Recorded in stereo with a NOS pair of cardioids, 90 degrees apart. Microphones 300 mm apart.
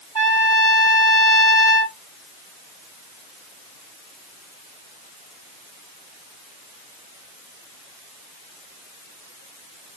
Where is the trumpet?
10° left, 1.4 m.